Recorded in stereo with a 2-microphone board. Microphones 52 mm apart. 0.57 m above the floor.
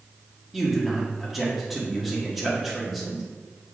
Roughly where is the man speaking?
Centre.